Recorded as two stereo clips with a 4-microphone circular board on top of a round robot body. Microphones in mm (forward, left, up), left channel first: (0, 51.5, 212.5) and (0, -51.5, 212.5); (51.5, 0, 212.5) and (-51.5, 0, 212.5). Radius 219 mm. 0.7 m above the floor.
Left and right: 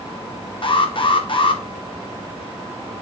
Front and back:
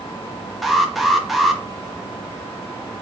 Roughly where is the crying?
No crying in this recording.